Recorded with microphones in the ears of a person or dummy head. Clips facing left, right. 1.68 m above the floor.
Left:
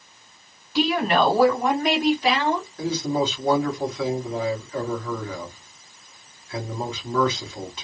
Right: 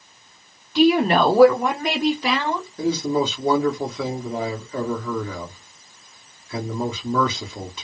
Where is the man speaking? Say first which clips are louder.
Right 6 dB; 70° right (ahead or behind), 1.7 m.